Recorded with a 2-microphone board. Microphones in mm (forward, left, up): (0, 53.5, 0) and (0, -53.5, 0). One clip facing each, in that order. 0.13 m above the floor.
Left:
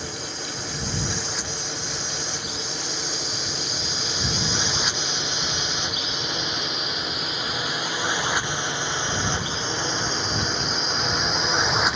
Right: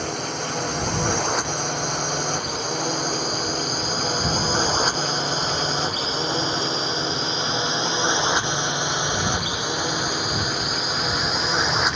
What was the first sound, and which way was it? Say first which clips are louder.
A drone: right 7 dB; 65° right (ahead or behind).